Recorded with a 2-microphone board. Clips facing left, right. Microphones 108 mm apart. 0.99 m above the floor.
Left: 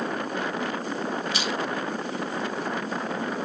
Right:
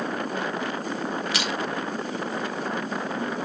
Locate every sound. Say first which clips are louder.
1.3 s crushing: even; 80° right, 2.5 m